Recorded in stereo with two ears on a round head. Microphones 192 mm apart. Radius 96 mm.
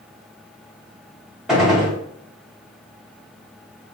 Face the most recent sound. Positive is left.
turn(degrees=0)  # may be behind; listen again after turning